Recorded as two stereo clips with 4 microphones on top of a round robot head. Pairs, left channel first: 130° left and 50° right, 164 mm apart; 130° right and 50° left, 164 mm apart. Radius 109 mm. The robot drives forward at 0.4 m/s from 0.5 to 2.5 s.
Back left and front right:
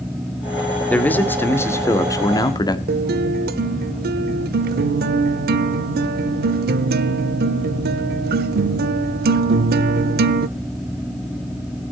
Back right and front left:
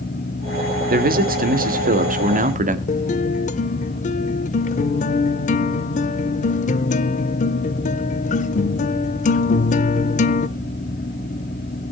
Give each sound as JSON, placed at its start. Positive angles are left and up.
{"t": 0.9, "sound": "a man speaking", "azimuth_deg": 50, "distance_m": 2.0}
{"t": 2.9, "sound": "a guitar", "azimuth_deg": -85, "distance_m": 0.6}